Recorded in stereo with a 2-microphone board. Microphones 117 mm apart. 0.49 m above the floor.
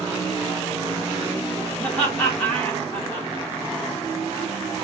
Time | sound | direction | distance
1.8 | laughter | 15° left (ahead or behind) | 0.9 m